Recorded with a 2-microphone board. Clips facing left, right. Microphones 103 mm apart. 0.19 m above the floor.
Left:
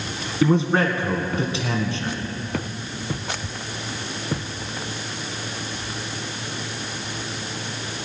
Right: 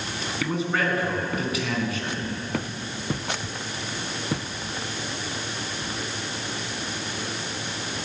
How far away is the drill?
I don't hear a drill.